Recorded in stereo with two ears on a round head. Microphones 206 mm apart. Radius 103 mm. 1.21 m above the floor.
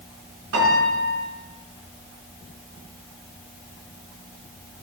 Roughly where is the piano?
Right.